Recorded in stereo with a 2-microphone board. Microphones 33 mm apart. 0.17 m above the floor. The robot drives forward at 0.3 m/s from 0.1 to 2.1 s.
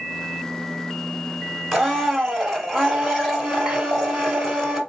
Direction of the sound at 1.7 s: 5° left (ahead or behind).